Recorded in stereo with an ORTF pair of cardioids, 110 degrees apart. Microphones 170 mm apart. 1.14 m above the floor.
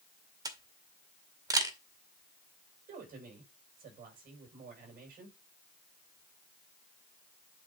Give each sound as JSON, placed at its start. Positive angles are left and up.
{"t": 0.5, "sound": "a camera shutter", "azimuth_deg": -20, "distance_m": 1.9}
{"t": 2.9, "sound": "a woman speaking", "azimuth_deg": -55, "distance_m": 6.5}